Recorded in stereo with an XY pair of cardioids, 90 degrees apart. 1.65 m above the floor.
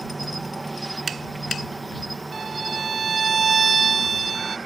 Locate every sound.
0.0 s an insect: 20° right
2.3 s a violin: 45° right